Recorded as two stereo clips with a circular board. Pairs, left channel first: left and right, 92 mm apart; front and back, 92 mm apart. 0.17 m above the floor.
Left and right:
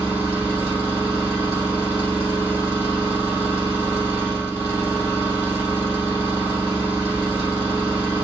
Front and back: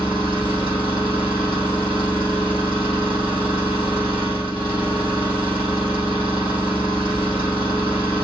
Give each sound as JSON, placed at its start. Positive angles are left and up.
{"t": 0.0, "sound": "an engine running", "azimuth_deg": 40, "distance_m": 2.5}